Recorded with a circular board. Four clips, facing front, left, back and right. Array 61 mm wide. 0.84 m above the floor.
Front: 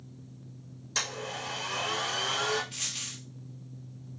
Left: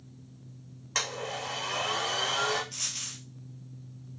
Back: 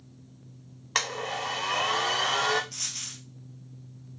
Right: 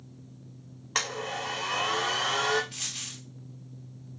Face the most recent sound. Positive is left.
turn(degrees=-30)